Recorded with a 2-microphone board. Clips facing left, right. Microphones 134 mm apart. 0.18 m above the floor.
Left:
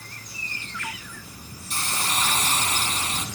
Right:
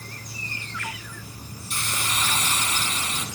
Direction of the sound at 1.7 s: 35° left (ahead or behind).